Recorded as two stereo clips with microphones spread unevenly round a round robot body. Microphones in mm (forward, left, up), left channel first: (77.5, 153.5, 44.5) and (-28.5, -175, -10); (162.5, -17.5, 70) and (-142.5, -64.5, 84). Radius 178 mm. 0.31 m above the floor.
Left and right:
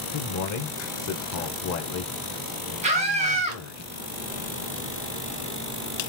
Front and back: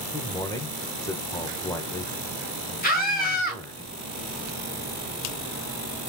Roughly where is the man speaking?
Left.